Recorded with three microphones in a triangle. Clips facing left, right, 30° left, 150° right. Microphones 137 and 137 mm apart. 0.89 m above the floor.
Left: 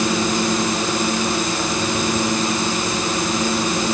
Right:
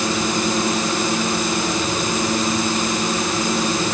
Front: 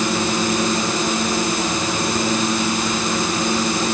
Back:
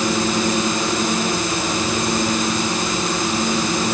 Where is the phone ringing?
I don't hear a phone ringing.